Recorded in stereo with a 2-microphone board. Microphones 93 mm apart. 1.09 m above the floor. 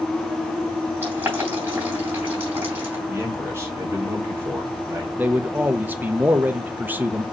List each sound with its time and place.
1.0 s boiling: 20° right (ahead or behind), 3 m
3.1 s a man speaking: 30° right (ahead or behind), 1.8 m
5.2 s a man speaking: 20° right (ahead or behind), 0.7 m